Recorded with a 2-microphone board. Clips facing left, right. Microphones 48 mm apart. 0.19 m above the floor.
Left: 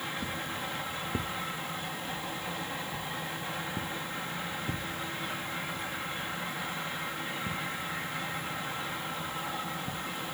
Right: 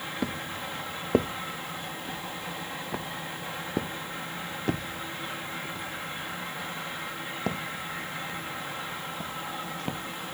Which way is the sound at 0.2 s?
75° right (ahead or behind).